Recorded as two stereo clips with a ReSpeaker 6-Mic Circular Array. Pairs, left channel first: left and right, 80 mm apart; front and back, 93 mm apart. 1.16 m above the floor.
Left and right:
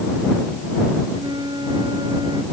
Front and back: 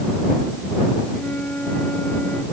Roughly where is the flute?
Right.